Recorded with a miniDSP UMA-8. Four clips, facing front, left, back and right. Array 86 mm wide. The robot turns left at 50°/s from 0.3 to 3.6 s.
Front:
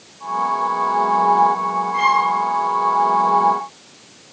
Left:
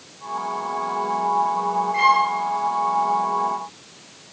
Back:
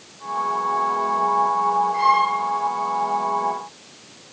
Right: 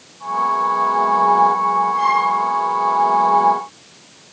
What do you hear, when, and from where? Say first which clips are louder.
1.9 s a violin: right 1 dB, front 4 dB; 80° left, 7 m; by 2.3 s 65° left, 7 m